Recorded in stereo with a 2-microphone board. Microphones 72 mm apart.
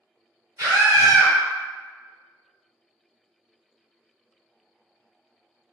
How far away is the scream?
About 1.6 m.